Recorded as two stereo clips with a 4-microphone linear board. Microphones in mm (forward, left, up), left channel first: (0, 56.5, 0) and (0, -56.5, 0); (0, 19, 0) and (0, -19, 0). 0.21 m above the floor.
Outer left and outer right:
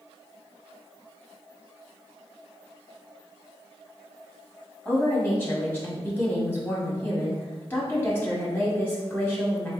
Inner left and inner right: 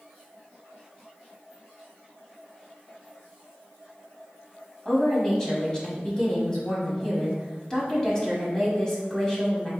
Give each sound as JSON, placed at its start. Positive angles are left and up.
{"t": 4.8, "sound": "a woman speaking", "side_deg": 20, "distance_m": 1.3}